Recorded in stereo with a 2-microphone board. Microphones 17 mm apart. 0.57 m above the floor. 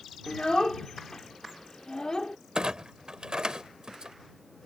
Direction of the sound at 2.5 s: 50° right (ahead or behind).